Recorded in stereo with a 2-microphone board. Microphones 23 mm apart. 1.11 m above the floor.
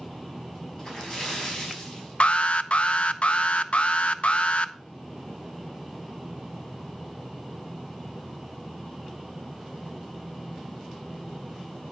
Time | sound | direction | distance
0.8 | a splash | 25° left (ahead or behind) | 5 m
2.2 | an alarm | 60° left (ahead or behind) | 0.7 m